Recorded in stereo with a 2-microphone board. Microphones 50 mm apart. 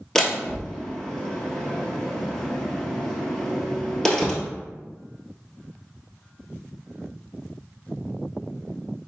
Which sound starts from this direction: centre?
A door slam, at 0.1 s.